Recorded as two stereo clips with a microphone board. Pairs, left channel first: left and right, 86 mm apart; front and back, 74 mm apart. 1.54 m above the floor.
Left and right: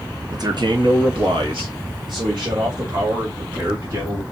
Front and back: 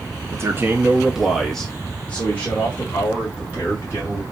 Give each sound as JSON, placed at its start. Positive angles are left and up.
{"t": 0.3, "sound": "a man speaking", "azimuth_deg": -130, "distance_m": 0.9}